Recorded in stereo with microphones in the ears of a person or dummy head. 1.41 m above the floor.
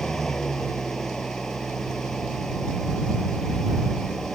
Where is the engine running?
5° left (ahead or behind).